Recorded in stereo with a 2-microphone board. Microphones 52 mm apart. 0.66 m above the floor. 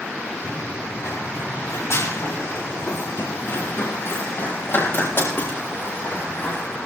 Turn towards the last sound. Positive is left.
turn(degrees=40)  # may be behind; listen again after turning